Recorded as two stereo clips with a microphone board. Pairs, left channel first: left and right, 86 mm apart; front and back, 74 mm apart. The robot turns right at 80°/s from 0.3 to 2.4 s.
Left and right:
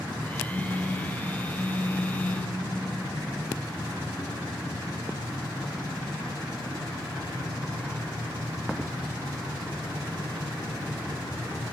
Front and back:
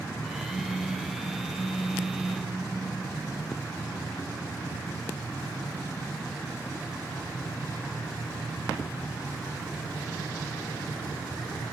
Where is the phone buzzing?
30° right, 3.5 m; by 2.5 s 125° left, 3.5 m.